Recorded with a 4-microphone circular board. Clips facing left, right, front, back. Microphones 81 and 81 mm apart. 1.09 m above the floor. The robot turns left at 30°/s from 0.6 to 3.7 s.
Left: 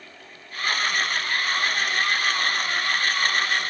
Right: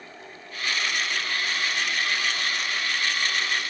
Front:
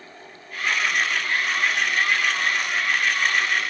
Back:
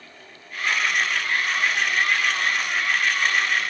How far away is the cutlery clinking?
I don't hear cutlery clinking.